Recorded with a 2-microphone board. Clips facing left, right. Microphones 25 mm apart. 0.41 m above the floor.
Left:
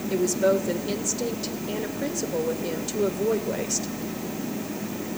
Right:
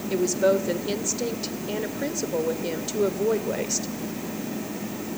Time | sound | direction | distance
0.1 | a woman speaking | 15° right (ahead or behind) | 1.4 m